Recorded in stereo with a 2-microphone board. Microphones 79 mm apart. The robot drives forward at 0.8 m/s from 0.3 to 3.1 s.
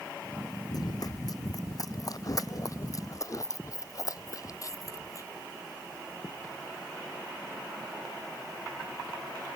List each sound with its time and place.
0.7 s running footsteps: 50° left (ahead or behind); by 5.3 s 45° left (ahead or behind)